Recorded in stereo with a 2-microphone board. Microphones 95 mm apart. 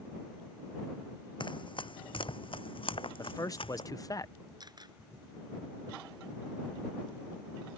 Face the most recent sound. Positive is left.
turn(degrees=-50)  # may be behind; listen again after turning